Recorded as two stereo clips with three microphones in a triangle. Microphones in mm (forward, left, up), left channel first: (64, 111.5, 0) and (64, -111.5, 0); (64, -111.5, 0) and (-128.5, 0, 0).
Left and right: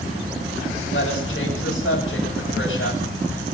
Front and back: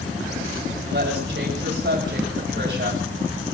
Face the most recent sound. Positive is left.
turn(degrees=120)